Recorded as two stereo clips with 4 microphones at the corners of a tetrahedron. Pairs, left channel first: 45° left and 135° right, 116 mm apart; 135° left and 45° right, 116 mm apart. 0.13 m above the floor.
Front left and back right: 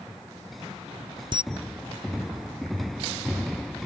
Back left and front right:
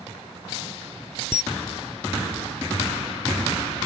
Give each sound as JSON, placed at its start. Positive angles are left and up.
{"t": 1.3, "sound": "a camera shutter", "azimuth_deg": -125, "distance_m": 0.8}